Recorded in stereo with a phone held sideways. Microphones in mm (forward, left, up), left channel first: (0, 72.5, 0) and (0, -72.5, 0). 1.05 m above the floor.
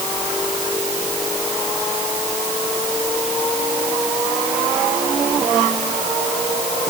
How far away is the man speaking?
I don't hear a man speaking.